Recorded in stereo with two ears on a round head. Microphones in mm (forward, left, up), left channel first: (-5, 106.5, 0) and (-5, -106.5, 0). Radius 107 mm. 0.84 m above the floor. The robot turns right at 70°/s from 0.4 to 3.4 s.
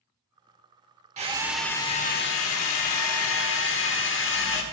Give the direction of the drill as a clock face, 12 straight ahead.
1 o'clock.